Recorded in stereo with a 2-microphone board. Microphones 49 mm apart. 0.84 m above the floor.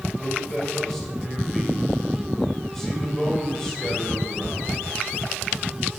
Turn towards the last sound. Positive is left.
turn(degrees=10)  # may be behind; listen again after turning